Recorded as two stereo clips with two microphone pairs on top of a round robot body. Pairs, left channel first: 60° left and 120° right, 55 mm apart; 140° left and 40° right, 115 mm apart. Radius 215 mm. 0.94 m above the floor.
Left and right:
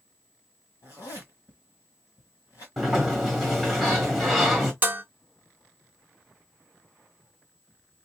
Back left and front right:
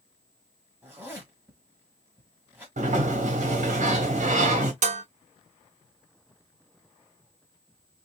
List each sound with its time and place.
0.8 s a zipper: 30° left, 1.5 m
2.8 s a sliding door: 25° right, 1.5 m
4.8 s dishes clattering: 55° right, 0.7 m